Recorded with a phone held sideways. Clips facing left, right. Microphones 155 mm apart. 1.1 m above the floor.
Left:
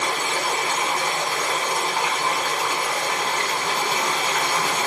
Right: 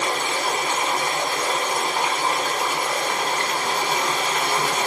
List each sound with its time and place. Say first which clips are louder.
0.0 s running water: right 1 dB; 20° right (ahead or behind), 2 m